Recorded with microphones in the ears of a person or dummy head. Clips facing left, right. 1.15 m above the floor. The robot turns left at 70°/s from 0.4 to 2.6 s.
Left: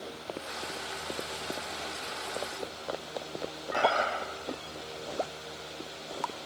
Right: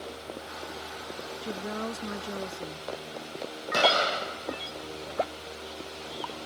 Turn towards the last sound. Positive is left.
turn(degrees=-50)  # may be behind; listen again after turning